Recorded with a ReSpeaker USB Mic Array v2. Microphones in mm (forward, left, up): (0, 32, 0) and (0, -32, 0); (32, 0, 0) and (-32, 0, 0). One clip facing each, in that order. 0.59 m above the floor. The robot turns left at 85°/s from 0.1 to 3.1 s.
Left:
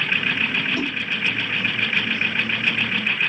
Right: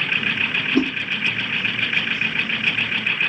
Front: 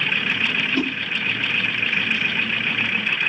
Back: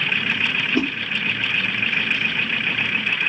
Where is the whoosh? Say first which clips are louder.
Right 6 dB, back 3 dB; 115° right, 1.6 m; by 0.9 s 130° right, 1.6 m.